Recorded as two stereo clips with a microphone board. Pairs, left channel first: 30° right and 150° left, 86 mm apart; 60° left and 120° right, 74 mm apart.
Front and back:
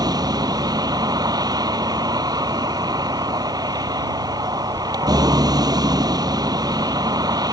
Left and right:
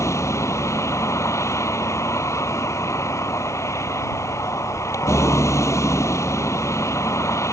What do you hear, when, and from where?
0.0 s a vehicle: 110° left